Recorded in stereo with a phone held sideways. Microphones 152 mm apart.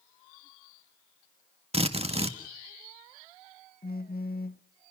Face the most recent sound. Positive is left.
turn(degrees=80)